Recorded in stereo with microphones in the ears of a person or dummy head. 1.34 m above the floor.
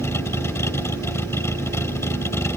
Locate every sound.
0.0 s a vehicle: 10° left (ahead or behind)